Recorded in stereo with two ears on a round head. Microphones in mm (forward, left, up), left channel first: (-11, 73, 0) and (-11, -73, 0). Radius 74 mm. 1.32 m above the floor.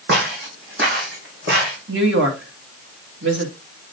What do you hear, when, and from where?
0.1 s footsteps: 65° right (ahead or behind), 4.5 m; by 1.8 s 75° right (ahead or behind), 5 m
1.9 s a woman speaking: 80° right, 2.5 m